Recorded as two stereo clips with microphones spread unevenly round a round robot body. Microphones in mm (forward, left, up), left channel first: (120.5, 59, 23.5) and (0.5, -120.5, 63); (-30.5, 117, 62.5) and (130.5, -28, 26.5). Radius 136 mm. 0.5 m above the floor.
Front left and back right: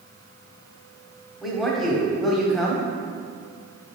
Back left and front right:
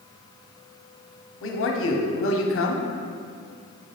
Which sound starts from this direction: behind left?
A man speaking, at 1.4 s.